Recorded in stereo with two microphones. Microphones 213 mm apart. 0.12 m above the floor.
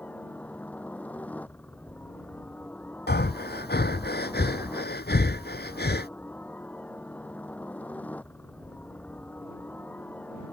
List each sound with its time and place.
0.0 s a helicopter: 5° left (ahead or behind)
3.1 s breathing: 50° left (ahead or behind)